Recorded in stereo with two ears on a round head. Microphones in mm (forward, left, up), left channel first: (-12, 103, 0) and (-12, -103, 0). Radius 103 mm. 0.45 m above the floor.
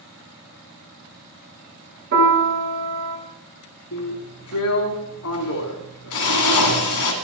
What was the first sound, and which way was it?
A piano, 55° right (ahead or behind).